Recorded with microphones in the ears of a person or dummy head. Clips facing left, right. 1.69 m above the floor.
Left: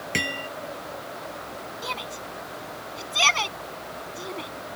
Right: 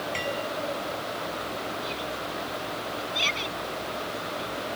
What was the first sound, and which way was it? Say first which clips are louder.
Hammering: left 1 dB; 70° left (ahead or behind).